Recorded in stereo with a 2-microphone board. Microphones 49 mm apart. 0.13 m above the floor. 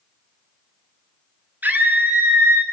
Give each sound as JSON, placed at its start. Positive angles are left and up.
{"t": 1.6, "sound": "a scream", "side_deg": -35, "distance_m": 1.8}